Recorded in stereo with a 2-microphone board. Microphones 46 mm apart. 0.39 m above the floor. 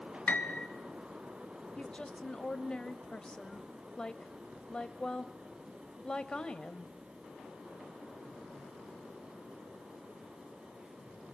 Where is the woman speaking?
15° left (ahead or behind), 1.5 m.